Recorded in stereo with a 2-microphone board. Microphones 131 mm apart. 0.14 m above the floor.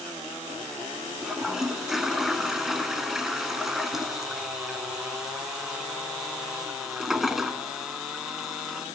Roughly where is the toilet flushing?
Centre.